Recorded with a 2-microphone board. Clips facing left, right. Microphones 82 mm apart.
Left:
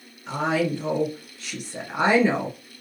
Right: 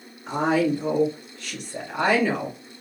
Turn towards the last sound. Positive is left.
turn(degrees=30)  # may be behind; listen again after turning